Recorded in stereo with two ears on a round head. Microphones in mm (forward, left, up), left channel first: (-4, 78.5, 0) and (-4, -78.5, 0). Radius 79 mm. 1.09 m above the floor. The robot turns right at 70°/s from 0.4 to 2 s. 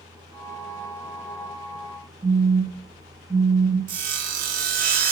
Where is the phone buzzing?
20° right (ahead or behind), 1.7 m.